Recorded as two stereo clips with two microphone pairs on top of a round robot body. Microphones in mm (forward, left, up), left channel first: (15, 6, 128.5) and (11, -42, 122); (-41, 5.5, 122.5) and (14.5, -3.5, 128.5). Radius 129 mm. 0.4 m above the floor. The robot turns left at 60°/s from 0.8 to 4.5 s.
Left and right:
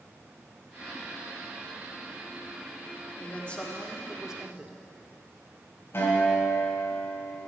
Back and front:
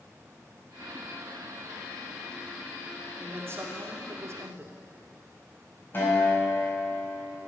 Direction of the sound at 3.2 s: 35° left.